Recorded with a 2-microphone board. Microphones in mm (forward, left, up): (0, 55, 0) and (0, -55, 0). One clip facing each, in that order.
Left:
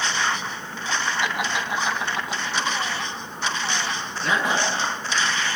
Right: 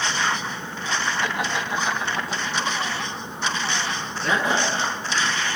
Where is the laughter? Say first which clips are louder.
Even; 10° left (ahead or behind), 3 m; by 4.7 s 20° left (ahead or behind), 5.5 m.